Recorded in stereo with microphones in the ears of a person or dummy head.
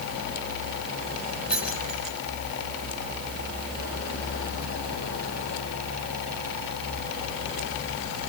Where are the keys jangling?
Centre (ahead or behind), 8.5 m.